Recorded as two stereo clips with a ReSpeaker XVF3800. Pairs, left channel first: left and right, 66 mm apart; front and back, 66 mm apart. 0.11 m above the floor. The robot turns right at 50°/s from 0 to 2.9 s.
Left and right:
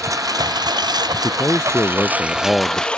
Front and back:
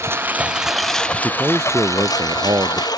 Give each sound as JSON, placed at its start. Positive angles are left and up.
{"t": 0.0, "sound": "a lawn mower", "azimuth_deg": -130}
{"t": 1.2, "sound": "a man speaking", "azimuth_deg": 115}